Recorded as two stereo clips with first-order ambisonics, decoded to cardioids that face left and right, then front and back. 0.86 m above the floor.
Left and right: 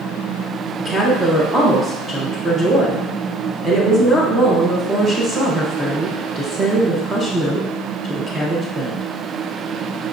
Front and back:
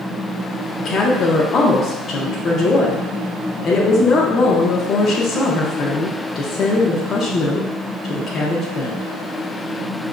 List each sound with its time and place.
0.8 s a woman speaking: 15° right, 0.6 m